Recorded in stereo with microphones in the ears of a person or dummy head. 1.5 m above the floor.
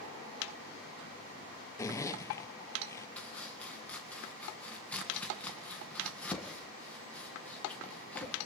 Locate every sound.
1.8 s a zipper: 15° left (ahead or behind), 0.5 m
3.2 s chopping: 5° left (ahead or behind), 1.7 m